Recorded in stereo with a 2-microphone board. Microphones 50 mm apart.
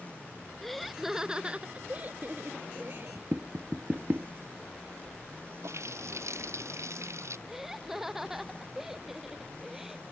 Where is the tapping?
40° right (ahead or behind).